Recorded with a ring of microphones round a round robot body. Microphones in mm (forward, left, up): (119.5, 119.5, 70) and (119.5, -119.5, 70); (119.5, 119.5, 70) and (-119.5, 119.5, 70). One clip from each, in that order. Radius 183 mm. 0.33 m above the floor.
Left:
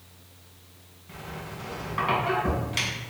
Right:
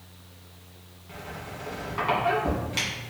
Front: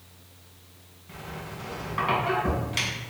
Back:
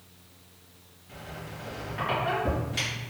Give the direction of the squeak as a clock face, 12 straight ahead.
12 o'clock.